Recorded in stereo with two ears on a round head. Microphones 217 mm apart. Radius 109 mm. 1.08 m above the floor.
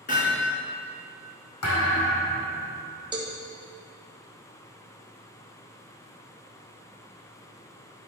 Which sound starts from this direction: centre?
A cowbell, at 3.1 s.